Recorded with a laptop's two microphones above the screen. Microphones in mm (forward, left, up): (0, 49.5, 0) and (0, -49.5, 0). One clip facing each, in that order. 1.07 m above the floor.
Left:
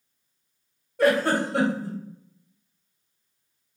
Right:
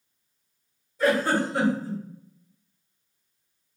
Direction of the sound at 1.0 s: 65° left (ahead or behind).